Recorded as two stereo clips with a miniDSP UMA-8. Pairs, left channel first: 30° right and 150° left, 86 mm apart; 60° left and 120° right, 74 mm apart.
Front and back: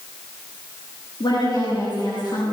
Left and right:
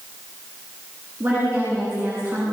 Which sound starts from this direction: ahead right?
A woman speaking, at 1.2 s.